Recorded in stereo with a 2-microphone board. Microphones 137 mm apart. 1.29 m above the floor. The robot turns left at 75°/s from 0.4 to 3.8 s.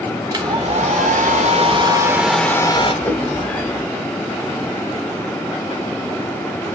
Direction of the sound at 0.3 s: 35° right.